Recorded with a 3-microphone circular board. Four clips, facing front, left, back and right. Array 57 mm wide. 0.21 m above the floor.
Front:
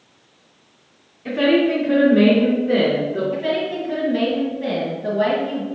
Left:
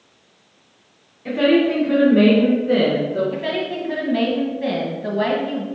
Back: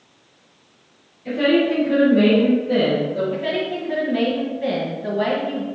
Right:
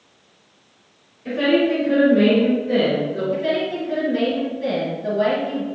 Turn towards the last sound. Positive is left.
turn(degrees=100)